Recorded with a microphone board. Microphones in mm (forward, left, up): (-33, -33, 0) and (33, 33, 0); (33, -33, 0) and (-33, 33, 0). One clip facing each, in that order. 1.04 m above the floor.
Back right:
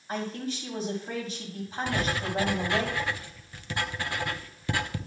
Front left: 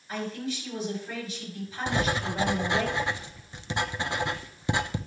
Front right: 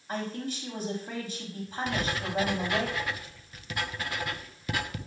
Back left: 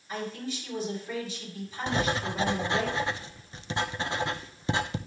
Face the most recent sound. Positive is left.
turn(degrees=100)